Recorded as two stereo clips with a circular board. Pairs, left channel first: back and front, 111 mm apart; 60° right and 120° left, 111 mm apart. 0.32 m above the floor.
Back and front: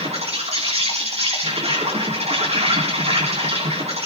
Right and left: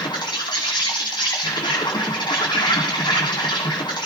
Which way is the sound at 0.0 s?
15° right.